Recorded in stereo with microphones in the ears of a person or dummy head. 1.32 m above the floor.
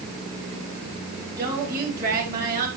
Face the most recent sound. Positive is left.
turn(degrees=-55)  # may be behind; listen again after turning